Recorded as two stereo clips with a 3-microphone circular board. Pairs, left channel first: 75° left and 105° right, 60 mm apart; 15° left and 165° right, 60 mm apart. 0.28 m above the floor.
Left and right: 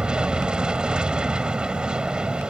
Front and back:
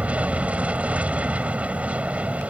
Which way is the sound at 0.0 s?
155° right.